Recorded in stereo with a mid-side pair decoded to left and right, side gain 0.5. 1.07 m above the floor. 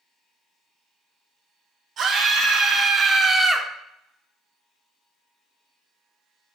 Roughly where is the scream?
Ahead right.